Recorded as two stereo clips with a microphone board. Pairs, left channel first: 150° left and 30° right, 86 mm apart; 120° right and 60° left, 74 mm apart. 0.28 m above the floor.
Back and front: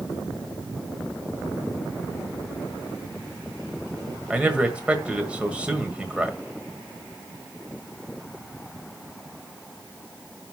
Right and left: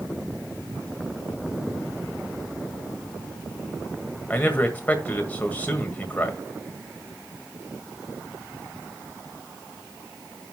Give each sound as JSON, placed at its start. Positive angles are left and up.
{"t": 4.3, "sound": "a man speaking", "azimuth_deg": -90, "distance_m": 1.5}